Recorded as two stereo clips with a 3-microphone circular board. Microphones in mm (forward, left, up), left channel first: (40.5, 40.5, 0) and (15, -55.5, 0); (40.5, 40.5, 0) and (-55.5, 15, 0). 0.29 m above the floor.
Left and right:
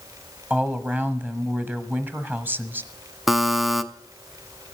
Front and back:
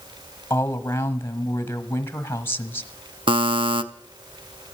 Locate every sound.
0.5 s a woman speaking: 40° right, 1.2 m
3.3 s a buzzer: 165° left, 0.7 m